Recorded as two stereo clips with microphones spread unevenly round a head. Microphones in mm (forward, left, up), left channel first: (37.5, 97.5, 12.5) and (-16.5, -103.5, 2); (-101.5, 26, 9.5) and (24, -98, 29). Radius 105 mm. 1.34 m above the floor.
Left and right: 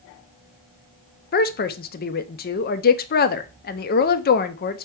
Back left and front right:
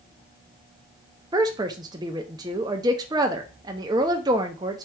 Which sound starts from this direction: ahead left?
A woman speaking, at 1.3 s.